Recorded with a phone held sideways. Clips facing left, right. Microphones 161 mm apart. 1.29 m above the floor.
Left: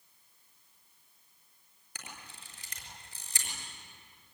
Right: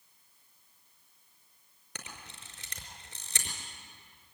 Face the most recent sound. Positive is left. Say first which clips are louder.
# right 1 dB
turn(degrees=-70)  # may be behind; listen again after turning